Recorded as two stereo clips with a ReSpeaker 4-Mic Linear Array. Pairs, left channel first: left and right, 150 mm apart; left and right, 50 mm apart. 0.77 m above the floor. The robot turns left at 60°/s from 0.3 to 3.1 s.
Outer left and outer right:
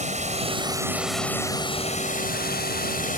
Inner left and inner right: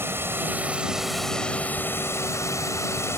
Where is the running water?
130° right; by 3.2 s 60° left.